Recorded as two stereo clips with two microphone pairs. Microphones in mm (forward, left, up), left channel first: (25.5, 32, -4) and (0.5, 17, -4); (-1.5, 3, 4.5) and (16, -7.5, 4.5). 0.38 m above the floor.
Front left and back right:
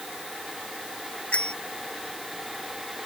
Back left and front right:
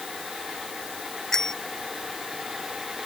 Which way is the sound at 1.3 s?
80° left.